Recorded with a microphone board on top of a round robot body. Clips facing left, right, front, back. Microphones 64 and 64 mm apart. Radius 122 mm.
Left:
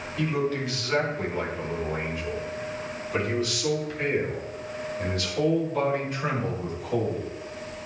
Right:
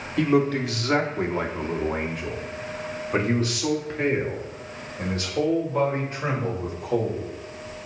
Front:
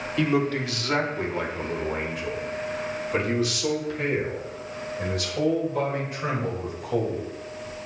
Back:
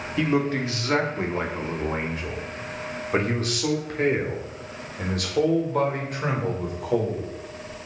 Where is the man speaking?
110° right, 3 m; by 7.3 s 155° right, 5 m.